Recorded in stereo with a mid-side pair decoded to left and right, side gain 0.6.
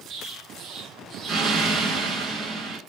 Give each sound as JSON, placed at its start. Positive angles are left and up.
{"t": 0.1, "sound": "an explosion", "azimuth_deg": -50, "distance_m": 2.5}